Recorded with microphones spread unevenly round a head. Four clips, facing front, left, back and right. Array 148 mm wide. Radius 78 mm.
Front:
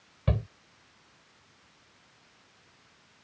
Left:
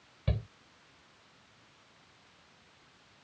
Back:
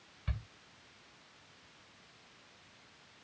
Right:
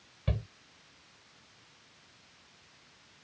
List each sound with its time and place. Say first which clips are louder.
0.3 s a shout: even, front 15 dB; 5° left